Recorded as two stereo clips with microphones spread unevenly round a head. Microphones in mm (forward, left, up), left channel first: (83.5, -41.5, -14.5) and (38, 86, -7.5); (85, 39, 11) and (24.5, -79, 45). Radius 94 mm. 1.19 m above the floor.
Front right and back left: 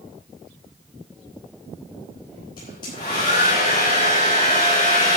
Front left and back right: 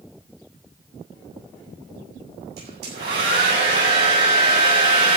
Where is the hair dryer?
140° right, 8.5 m.